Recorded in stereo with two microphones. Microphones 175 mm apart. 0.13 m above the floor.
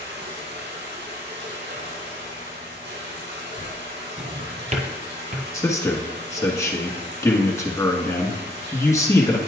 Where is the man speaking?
15° left (ahead or behind), 1.1 m.